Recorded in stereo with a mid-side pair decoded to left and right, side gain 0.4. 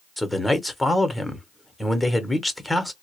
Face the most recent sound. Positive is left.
turn(degrees=5)